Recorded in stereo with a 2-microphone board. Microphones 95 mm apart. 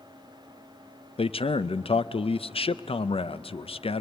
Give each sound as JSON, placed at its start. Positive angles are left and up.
{"t": 1.2, "sound": "a man speaking", "side_deg": 80, "distance_m": 0.5}